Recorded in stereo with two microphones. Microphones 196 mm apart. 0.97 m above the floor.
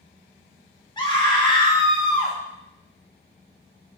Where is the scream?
20° left (ahead or behind), 1.6 m.